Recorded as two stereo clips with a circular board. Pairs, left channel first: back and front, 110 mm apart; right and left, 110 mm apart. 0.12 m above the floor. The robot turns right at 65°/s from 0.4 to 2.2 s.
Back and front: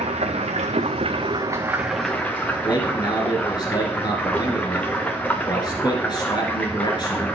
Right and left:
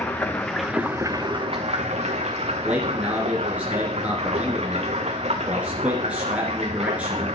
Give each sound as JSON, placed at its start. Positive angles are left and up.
{"t": 0.0, "sound": "running water", "azimuth_deg": -15, "distance_m": 1.6}
{"t": 2.6, "sound": "a man speaking", "azimuth_deg": 165, "distance_m": 2.0}